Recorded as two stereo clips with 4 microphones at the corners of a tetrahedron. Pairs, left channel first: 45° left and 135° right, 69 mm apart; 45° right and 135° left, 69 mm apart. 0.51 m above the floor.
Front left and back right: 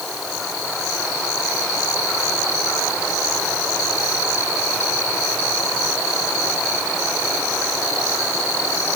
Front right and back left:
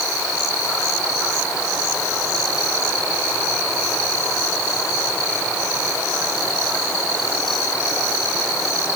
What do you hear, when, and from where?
Only background noise.